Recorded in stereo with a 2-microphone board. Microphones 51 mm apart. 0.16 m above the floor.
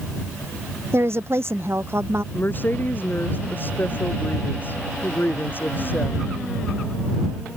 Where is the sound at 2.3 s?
40° left (ahead or behind).